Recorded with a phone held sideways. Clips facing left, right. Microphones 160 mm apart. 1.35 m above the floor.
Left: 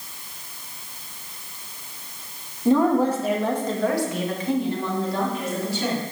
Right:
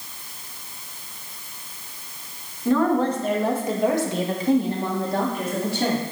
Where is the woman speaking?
20° left (ahead or behind), 2 m; by 6.0 s 65° right (ahead or behind), 3.5 m.